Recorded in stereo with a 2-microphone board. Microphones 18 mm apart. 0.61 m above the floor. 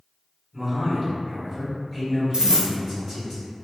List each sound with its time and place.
0.5 s a man speaking: 5° left (ahead or behind), 1.5 m
2.3 s a dropped coin: 40° right (ahead or behind), 0.7 m